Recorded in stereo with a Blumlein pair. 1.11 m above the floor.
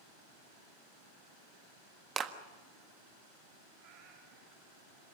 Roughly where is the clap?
Ahead.